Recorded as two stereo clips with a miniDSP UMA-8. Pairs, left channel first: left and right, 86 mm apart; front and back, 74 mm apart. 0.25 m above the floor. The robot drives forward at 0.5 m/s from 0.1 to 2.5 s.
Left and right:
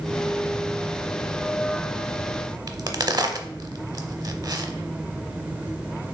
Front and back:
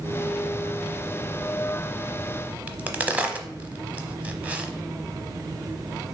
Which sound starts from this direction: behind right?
A crack, at 2.7 s.